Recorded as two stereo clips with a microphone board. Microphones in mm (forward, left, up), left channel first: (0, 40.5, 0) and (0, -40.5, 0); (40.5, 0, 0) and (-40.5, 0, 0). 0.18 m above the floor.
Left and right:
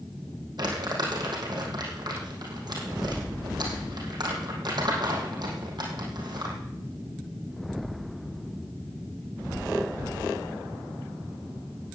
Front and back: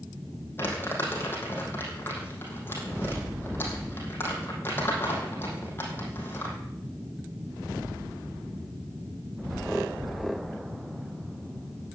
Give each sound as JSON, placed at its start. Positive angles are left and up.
{"t": 0.6, "sound": "crumpling", "azimuth_deg": -60, "distance_m": 4.0}